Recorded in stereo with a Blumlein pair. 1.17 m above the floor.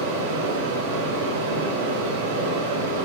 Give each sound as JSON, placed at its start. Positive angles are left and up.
{"t": 0.0, "sound": "a fan", "azimuth_deg": -50, "distance_m": 0.8}